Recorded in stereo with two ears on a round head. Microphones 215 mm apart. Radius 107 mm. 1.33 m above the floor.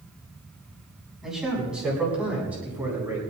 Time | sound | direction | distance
1.2 | a man speaking | centre (ahead or behind) | 9.5 m